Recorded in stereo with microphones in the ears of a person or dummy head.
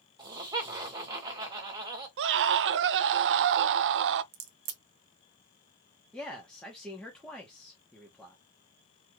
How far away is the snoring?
No snoring in this recording.